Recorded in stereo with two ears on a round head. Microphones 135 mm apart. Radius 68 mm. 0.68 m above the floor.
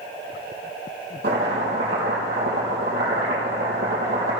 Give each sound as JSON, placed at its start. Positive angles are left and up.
{"t": 1.2, "sound": "chopping", "side_deg": -80, "distance_m": 4.0}